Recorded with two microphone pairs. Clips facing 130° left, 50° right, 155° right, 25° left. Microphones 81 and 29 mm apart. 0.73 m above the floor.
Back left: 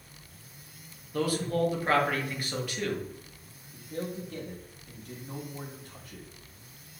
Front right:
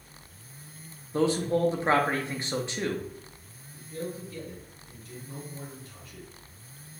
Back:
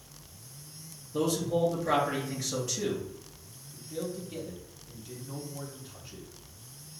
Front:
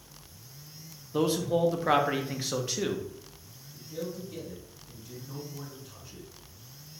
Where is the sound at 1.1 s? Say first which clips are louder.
Front right 3 dB, front 2 dB; 5° right, 0.5 m.